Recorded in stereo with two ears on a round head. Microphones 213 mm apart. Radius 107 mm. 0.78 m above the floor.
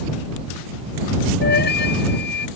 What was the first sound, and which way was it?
A flute, 45° left (ahead or behind).